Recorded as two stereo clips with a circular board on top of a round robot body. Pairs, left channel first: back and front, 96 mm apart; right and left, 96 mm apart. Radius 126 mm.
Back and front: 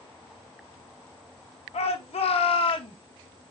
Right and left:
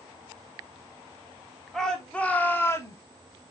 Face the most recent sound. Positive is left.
turn(degrees=-150)